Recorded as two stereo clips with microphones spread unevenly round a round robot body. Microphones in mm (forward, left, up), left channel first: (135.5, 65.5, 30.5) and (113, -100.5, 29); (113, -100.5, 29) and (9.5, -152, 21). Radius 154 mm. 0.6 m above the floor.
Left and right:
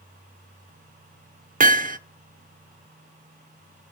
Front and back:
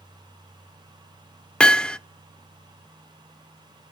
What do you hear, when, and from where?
1.6 s hammering: 55° right, 0.9 m